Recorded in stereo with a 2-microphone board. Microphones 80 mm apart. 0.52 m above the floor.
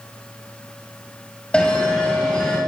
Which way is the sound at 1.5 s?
10° left (ahead or behind).